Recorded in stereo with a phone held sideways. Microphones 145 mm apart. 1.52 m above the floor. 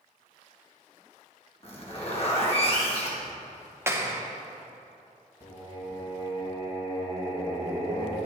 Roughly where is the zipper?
Left.